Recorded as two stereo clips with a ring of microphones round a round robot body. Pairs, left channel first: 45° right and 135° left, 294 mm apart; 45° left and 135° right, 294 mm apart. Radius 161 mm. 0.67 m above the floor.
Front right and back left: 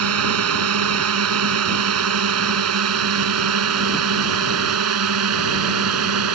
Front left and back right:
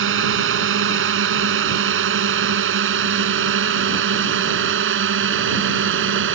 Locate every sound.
0.0 s a drone: 175° left